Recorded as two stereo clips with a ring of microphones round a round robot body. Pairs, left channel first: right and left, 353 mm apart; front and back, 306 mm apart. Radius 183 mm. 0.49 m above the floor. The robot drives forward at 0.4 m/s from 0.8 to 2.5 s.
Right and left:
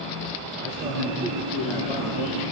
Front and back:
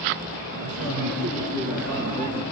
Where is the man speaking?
155° left, 5.5 m.